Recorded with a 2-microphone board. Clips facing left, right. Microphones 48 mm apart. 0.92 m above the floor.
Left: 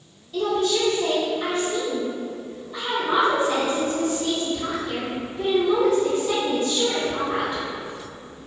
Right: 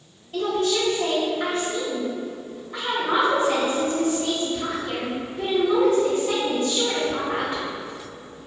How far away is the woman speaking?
About 1.3 m.